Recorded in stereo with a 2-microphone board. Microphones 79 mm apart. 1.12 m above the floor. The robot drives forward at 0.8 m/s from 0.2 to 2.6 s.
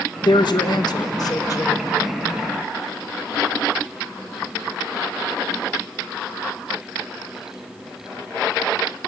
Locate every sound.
0.2 s a woman speaking: 65° left (ahead or behind), 1.6 m; by 1.8 s 45° left (ahead or behind), 2 m